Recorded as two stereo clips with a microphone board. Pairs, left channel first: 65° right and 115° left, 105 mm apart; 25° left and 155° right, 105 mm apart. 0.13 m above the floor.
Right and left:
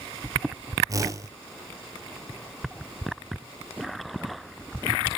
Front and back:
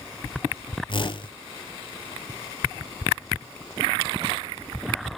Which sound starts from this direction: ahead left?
A whoosh, at 0.9 s.